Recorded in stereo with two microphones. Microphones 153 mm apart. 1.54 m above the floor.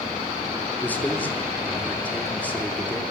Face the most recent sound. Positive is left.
turn(degrees=10)  # may be behind; listen again after turning